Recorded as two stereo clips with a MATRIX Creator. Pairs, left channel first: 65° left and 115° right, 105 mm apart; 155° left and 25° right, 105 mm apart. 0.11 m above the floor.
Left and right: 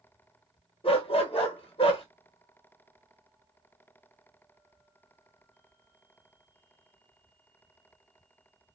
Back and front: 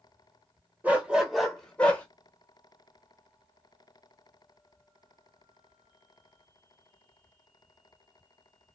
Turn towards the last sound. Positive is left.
turn(degrees=85)